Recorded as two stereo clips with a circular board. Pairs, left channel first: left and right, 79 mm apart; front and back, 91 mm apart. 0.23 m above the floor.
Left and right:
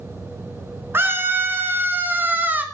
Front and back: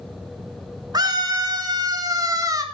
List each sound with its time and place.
0.9 s a scream: 145° right, 3 m; by 2.6 s 150° right, 2.5 m